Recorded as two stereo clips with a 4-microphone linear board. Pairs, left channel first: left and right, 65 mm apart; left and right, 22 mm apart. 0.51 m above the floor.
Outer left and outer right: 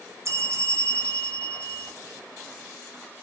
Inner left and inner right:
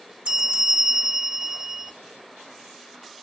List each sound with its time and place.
0.2 s a bell: 50° right (ahead or behind), 0.7 m